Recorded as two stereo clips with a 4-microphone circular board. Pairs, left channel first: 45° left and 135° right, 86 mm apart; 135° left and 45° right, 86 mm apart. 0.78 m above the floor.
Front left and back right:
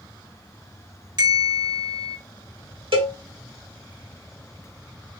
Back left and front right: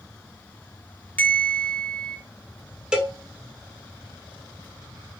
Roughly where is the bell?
Behind right.